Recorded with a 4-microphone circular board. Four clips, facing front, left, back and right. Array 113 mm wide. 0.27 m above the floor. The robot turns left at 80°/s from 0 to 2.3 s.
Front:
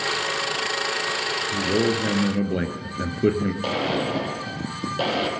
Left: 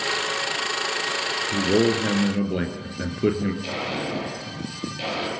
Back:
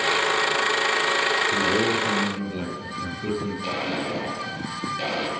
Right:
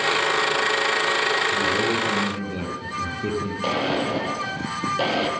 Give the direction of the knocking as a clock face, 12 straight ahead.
I don't hear knocking.